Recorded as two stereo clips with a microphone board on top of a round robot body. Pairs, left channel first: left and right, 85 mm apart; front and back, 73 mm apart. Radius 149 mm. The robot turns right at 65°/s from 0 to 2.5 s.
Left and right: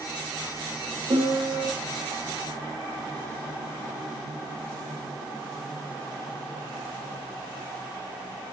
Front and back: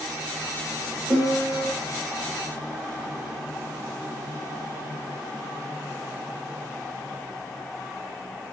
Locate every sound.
1.1 s a piano: 135° right, 2.5 m; by 1.7 s 100° right, 2.5 m